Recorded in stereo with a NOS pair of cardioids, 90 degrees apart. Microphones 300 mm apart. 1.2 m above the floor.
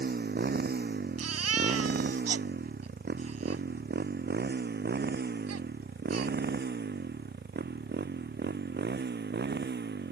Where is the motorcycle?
30° right; by 10.1 s 35° right.